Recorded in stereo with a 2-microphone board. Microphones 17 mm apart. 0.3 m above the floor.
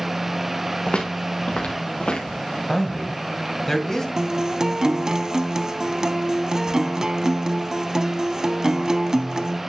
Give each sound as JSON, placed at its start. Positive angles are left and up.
{"t": 0.9, "sound": "footsteps", "side_deg": 85, "distance_m": 2.5}
{"t": 2.7, "sound": "a man speaking", "side_deg": 25, "distance_m": 2.0}
{"t": 4.2, "sound": "a guitar", "side_deg": -40, "distance_m": 0.6}